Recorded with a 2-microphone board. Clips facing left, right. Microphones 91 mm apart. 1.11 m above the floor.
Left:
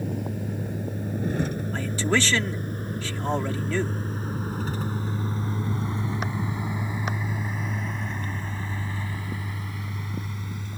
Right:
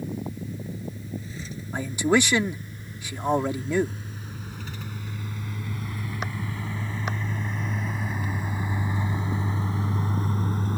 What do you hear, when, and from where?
0.0 s a vehicle: 60° left (ahead or behind); by 10.8 s 45° right (ahead or behind)
1.7 s a man speaking: 15° right (ahead or behind)